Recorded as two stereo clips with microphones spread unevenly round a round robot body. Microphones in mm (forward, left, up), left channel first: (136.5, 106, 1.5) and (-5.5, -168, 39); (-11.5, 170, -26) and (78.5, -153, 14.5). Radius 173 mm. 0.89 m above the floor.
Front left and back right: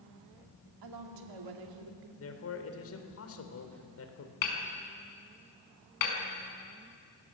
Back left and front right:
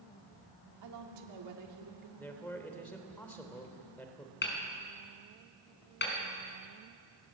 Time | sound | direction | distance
0.8 | a woman speaking | 115° right | 2.5 m
2.2 | a man speaking | 20° left | 3 m
4.4 | hammering | 45° left | 5 m